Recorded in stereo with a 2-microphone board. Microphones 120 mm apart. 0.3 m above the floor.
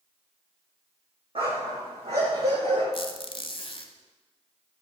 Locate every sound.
1.4 s a dog barking: 55° right (ahead or behind), 3.5 m; by 2.8 s 70° right (ahead or behind), 5.5 m
2.9 s a squeak: 55° left (ahead or behind), 0.9 m